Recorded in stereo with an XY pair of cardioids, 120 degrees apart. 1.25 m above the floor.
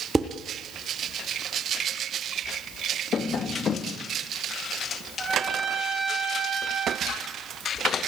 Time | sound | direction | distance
0.1 | dishes clattering | 10° right | 1.5 m
3.1 | tapping | 45° left | 1.8 m
5.2 | a trumpet | 25° right | 7 m
7.1 | ticking | 60° left | 4 m